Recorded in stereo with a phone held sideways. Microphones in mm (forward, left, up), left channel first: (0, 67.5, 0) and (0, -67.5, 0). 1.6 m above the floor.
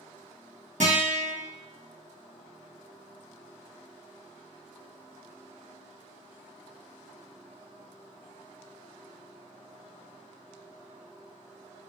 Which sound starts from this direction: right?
A guitar, at 0.8 s.